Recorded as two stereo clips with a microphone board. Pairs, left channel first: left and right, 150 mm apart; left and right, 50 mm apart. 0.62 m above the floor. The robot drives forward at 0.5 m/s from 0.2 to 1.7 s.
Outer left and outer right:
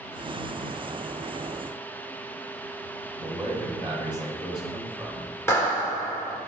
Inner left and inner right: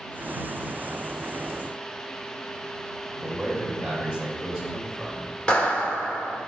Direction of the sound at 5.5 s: 20° left (ahead or behind).